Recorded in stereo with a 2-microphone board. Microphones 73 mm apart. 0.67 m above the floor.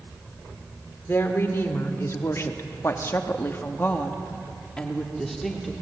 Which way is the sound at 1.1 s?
35° left (ahead or behind).